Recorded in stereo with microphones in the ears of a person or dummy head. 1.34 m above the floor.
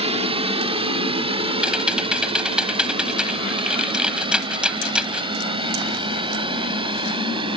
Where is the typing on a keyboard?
5° right (ahead or behind).